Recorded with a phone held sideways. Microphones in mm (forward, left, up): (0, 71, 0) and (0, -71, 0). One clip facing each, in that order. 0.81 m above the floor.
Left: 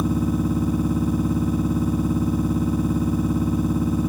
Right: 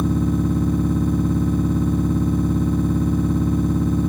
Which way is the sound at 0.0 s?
10° left (ahead or behind).